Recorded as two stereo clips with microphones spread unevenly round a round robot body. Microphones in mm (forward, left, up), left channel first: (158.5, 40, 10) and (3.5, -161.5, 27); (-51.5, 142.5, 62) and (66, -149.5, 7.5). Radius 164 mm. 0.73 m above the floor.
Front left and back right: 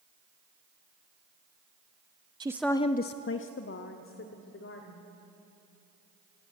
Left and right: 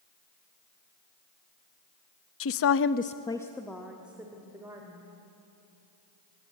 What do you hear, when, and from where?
2.4 s a woman speaking: 160° left, 0.8 m; by 5.0 s 10° left, 3 m